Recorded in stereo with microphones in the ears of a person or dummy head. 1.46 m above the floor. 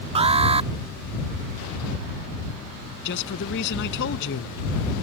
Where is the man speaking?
65° left (ahead or behind).